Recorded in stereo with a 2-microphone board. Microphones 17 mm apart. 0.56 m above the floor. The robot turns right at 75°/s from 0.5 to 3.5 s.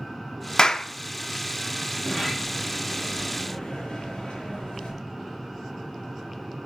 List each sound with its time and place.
0.6 s a clap: 35° left (ahead or behind), 0.6 m; by 0.9 s 40° left (ahead or behind), 0.6 m
1.9 s a sliding door: 55° right, 5.5 m; by 5.0 s 60° left, 5.5 m